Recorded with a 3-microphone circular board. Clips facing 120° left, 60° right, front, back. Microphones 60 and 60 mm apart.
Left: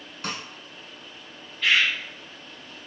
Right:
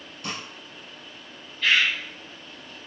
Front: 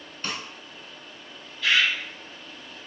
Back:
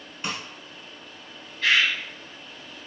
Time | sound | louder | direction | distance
0.2 | a snare drum | left 1 dB, back 1 dB | 105° left | 0.8 m
1.6 | a bird | even, back 1 dB | 155° right | 1.0 m